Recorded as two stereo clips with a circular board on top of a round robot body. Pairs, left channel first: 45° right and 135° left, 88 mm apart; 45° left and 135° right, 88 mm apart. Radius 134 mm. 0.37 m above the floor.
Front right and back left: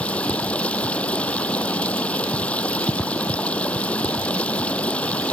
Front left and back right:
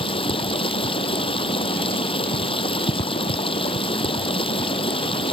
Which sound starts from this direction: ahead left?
Running water, at 0.0 s.